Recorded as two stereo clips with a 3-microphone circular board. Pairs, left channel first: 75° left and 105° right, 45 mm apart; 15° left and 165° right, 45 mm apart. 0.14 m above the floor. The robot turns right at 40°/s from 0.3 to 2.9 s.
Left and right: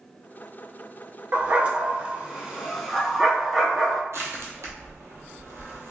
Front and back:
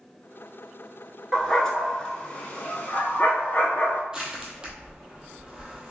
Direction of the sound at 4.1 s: 90° right.